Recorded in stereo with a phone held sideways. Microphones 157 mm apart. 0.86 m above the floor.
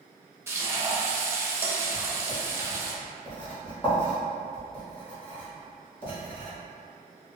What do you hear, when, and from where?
0.5 s frying: 15° right (ahead or behind), 0.6 m
1.9 s writing: 35° left (ahead or behind), 1.3 m